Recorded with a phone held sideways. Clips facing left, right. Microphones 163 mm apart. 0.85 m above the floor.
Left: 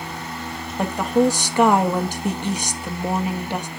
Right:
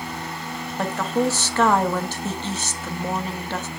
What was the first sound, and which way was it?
A woman speaking, 15° left (ahead or behind).